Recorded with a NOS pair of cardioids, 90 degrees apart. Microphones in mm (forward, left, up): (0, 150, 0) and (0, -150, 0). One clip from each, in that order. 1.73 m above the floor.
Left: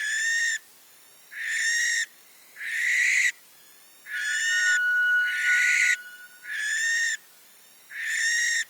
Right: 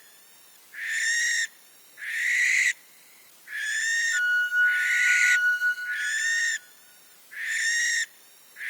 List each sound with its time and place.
4.1 s a flute: 65° right, 3.5 m